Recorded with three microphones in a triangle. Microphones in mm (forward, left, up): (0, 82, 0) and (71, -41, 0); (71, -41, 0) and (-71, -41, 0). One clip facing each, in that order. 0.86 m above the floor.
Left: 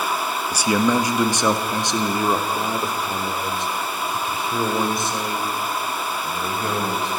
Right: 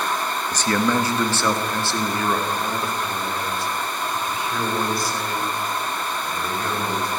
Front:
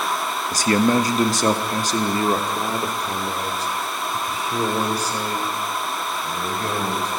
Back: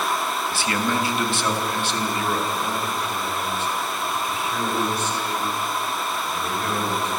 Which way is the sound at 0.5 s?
40° left.